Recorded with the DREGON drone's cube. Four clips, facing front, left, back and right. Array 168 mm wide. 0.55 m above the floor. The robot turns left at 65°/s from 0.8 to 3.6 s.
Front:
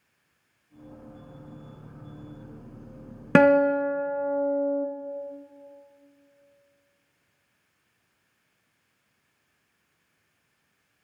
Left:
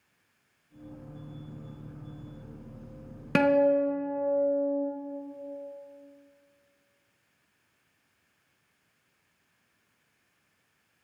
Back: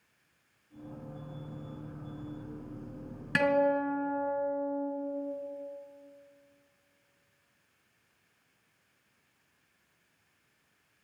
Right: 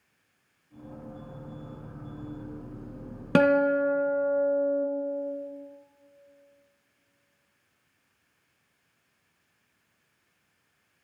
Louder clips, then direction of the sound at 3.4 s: Right 1 dB, front 8 dB; 15° right.